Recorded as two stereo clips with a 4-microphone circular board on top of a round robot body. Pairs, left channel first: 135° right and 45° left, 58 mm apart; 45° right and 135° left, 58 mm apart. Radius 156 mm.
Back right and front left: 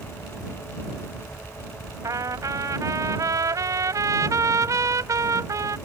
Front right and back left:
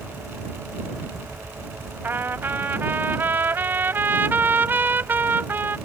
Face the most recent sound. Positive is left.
turn(degrees=80)